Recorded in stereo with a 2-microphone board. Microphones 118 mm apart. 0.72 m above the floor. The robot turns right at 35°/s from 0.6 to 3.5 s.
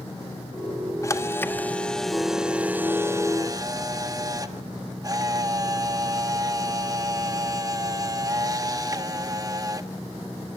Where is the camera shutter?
140° left, 1.4 m; by 9.9 s 135° right, 1.4 m.